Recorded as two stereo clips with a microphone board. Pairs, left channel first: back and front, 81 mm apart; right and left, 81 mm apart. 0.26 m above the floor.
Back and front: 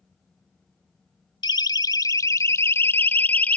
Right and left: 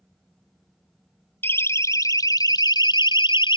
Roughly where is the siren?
Behind right.